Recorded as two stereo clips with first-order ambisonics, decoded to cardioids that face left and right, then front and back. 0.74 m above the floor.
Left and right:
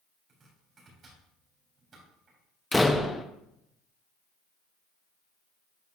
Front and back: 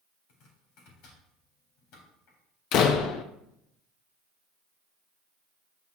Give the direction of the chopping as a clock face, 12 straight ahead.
1 o'clock.